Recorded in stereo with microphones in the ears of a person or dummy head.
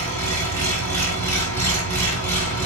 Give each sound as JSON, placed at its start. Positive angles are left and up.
{"t": 0.0, "sound": "an engine running", "side_deg": 15, "distance_m": 5.0}